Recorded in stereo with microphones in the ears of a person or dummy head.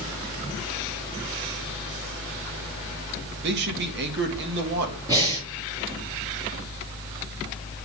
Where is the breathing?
20° right (ahead or behind), 5 m.